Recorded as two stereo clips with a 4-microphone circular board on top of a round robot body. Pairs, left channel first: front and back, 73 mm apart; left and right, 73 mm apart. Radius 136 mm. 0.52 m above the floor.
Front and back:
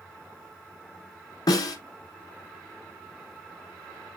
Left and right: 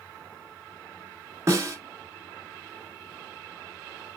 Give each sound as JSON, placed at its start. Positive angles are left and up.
{"t": 1.5, "sound": "a snare drum", "azimuth_deg": -35, "distance_m": 1.2}